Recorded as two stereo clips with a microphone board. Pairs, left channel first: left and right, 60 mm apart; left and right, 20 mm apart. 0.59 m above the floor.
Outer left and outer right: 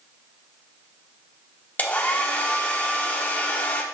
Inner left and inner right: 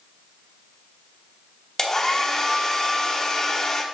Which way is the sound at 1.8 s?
30° left (ahead or behind).